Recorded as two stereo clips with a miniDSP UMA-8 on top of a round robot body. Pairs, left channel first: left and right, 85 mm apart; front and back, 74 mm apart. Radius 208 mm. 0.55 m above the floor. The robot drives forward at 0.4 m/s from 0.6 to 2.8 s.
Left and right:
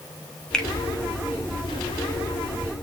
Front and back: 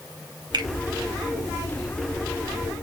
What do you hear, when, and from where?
0.5 s a finger snap: 170° left, 5 m